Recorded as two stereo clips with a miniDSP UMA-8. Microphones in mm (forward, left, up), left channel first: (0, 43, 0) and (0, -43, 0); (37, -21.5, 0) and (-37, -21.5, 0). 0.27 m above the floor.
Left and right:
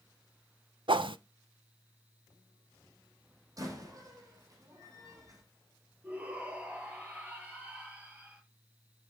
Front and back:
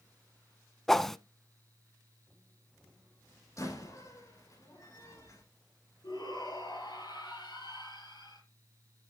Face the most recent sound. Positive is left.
turn(degrees=-20)